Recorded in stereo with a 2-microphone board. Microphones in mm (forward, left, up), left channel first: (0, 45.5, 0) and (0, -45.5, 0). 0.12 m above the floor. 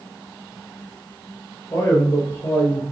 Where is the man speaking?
25° left (ahead or behind), 2.5 m.